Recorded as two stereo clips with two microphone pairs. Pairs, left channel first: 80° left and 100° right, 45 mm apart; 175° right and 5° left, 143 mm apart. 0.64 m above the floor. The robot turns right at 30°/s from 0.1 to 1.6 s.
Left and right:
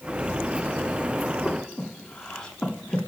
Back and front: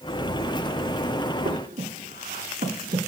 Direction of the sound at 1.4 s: Straight ahead.